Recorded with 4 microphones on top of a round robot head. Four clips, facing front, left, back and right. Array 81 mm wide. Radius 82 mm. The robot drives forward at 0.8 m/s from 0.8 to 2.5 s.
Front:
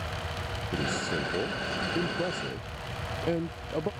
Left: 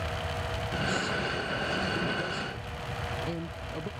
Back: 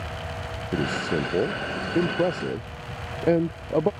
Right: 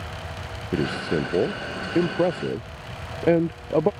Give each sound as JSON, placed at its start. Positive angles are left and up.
{"t": 0.7, "sound": "a man speaking", "azimuth_deg": -120}